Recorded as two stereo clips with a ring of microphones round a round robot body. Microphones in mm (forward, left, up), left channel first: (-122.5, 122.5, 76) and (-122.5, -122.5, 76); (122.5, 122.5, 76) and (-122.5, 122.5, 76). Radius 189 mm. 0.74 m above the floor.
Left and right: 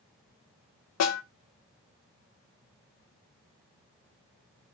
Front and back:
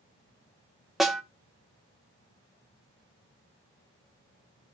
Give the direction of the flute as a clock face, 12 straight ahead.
No flute in this recording.